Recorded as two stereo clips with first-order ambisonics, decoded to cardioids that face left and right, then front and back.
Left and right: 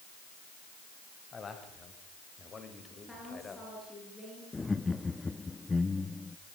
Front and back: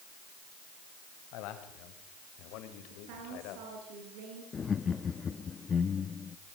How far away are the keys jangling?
No keys jangling in this recording.